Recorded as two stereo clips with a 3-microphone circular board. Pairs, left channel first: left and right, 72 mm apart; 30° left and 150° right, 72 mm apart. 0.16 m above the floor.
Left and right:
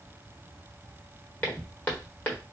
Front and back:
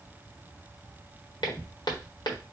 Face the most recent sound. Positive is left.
turn(degrees=25)